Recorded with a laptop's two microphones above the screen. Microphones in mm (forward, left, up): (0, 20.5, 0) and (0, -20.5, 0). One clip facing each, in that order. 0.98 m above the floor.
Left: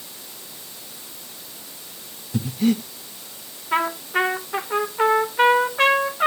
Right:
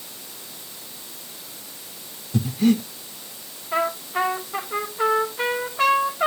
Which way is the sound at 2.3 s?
5° left (ahead or behind).